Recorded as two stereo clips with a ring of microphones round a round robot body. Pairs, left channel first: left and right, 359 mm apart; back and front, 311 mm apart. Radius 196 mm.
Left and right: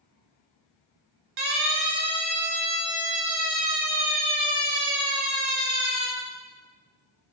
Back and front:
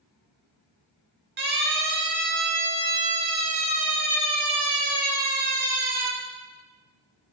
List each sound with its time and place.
1.4 s a siren: 65° right, 7.5 m; by 6.1 s 40° right, 10 m